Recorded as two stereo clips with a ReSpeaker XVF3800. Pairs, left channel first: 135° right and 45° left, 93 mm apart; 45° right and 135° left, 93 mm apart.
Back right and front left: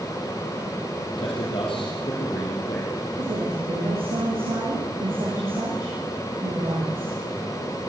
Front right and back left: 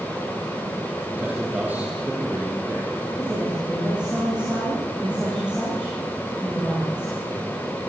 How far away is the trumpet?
I don't hear a trumpet.